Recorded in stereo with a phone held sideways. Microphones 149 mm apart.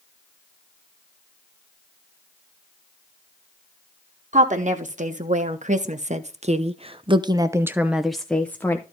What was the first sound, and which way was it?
A woman speaking, 55° right (ahead or behind).